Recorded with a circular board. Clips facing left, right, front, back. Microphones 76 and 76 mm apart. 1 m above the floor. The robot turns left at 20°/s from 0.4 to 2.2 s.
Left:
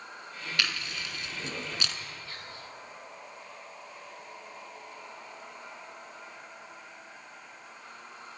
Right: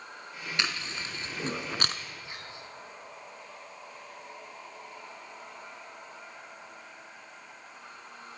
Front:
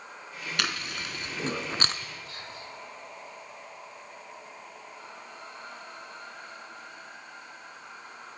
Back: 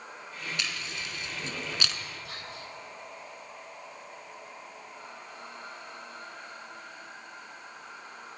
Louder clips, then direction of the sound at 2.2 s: Even, even; 160° right.